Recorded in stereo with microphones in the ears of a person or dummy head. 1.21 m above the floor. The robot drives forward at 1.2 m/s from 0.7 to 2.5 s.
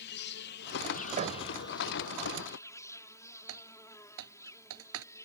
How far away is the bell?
No bell in this recording.